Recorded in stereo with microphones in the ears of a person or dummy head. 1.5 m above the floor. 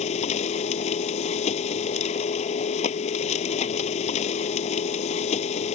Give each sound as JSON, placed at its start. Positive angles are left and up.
{"t": 0.0, "sound": "a machine running", "side_deg": 35}